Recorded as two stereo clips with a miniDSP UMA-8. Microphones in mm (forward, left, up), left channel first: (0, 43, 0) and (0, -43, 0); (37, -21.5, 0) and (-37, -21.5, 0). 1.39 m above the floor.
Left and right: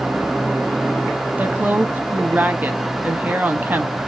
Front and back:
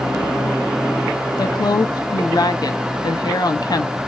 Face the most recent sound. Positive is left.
turn(degrees=-20)